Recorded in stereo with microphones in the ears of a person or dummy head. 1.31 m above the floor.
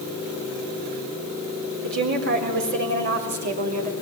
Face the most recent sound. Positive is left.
turn(degrees=-50)  # may be behind; listen again after turning